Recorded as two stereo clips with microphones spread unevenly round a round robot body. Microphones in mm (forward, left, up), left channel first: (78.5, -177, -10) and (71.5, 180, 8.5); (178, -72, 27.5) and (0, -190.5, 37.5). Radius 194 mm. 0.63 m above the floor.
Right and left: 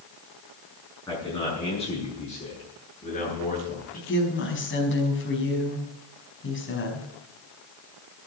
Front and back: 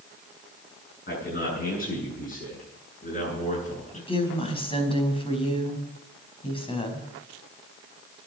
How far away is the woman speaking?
About 5 m.